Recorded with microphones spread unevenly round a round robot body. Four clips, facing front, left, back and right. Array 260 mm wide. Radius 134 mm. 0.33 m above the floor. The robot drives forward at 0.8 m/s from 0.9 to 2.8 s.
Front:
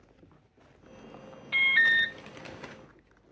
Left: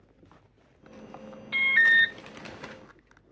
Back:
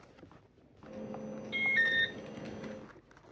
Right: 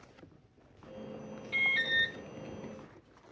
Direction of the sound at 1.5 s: 50° left.